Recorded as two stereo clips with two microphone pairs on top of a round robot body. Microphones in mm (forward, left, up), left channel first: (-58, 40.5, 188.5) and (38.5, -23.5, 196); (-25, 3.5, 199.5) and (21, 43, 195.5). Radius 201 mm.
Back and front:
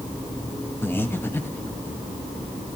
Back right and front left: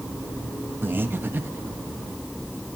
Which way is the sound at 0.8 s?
85° left.